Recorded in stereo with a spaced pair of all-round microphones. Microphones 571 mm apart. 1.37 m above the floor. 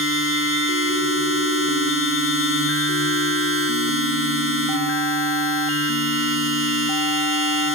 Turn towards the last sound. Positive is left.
turn(degrees=20)  # may be behind; listen again after turning